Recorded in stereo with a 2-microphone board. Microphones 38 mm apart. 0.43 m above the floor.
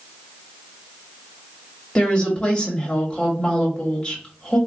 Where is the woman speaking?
30° left (ahead or behind), 1.4 m.